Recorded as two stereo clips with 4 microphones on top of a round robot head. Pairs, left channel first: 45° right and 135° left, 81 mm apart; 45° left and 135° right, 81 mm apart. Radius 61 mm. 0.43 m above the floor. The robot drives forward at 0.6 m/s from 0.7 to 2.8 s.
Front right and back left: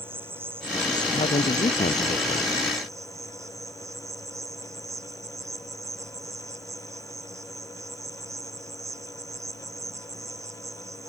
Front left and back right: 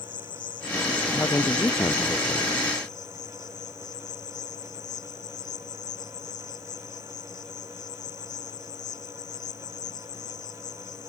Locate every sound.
0.0 s an insect: 75° left; by 11.1 s 85° left
1.1 s a man speaking: 25° right